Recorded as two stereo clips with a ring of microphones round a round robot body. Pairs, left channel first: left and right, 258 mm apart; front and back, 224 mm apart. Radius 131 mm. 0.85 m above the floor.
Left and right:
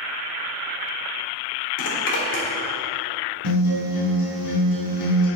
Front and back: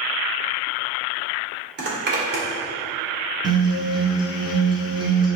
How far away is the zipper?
About 2 m.